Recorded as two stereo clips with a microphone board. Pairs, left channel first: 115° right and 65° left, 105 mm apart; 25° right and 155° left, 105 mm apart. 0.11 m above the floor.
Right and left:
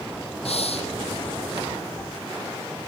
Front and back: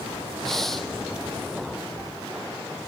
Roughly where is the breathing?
Right.